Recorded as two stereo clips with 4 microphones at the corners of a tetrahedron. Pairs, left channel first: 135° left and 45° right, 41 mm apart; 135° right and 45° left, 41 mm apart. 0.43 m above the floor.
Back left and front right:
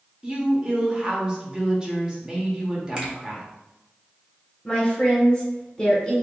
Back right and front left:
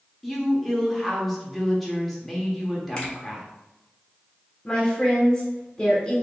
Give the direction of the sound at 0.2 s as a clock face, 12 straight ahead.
1 o'clock.